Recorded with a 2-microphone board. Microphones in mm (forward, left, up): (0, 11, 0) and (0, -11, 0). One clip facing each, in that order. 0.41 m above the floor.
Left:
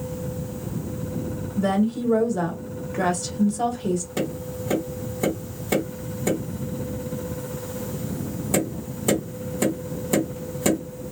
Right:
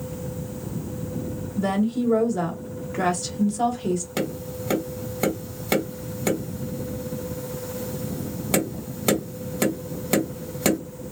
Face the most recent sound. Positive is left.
turn(degrees=-50)  # may be behind; listen again after turning